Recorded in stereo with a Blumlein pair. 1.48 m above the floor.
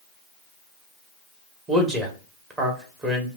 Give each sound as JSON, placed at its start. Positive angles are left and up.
{"t": 1.7, "sound": "a man speaking", "azimuth_deg": -20, "distance_m": 1.4}